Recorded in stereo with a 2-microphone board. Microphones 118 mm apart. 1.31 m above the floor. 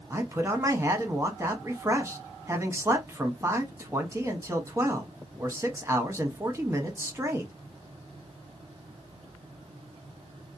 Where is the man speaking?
25° right (ahead or behind), 0.8 m.